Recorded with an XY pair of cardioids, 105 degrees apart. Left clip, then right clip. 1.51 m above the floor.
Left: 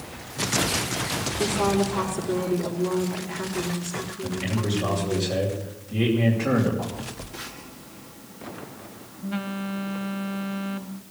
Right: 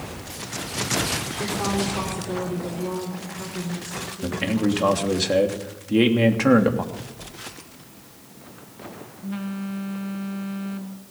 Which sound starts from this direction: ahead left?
A phone buzzing, at 6.9 s.